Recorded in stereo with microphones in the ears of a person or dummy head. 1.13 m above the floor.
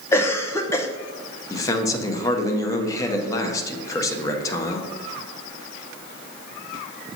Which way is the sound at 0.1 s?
15° left (ahead or behind).